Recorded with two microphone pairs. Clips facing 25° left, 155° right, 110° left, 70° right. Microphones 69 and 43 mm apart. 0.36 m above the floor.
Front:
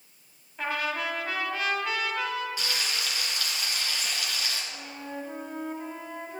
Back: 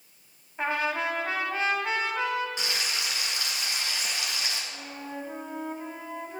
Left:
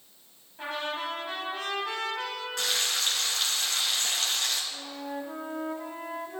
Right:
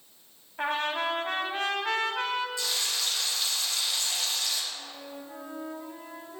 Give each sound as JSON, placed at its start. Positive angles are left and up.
{"t": 0.6, "sound": "a trumpet", "azimuth_deg": -100, "distance_m": 2.0}
{"t": 2.6, "sound": "frying", "azimuth_deg": 135, "distance_m": 3.0}
{"t": 4.7, "sound": "a flute", "azimuth_deg": 120, "distance_m": 1.4}